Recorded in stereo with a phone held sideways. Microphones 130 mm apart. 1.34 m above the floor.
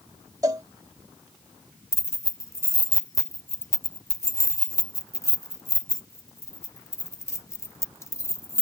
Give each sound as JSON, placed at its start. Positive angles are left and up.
{"t": 0.4, "sound": "a cowbell", "side_deg": -30}
{"t": 1.9, "sound": "keys jangling", "side_deg": 20}